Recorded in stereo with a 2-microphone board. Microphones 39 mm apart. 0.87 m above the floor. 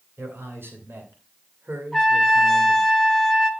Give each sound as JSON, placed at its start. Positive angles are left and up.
{"t": 0.2, "sound": "a man speaking", "side_deg": -80, "distance_m": 3.0}
{"t": 1.9, "sound": "a trumpet", "side_deg": 10, "distance_m": 2.0}